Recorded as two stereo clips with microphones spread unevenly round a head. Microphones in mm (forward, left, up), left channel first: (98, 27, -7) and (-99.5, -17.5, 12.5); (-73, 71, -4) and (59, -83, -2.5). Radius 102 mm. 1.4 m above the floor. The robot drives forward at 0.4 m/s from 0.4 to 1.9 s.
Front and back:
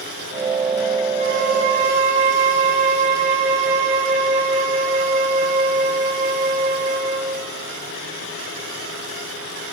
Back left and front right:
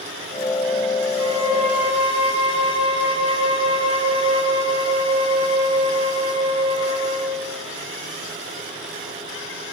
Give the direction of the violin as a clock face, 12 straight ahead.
4 o'clock.